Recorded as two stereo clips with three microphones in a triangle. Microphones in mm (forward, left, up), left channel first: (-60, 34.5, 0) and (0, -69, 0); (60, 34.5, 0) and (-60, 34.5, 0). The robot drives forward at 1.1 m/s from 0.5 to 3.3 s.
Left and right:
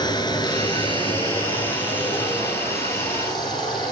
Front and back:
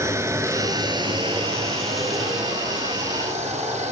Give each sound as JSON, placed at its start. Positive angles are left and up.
{"t": 0.0, "sound": "running water", "azimuth_deg": 130, "distance_m": 1.3}